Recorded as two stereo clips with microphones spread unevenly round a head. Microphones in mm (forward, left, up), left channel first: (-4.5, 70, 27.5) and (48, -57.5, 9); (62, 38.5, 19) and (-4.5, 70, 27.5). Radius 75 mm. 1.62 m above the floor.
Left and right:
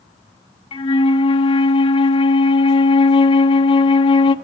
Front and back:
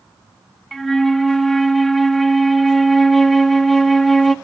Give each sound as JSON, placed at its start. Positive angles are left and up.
{"t": 0.7, "sound": "a flute", "azimuth_deg": 70, "distance_m": 0.7}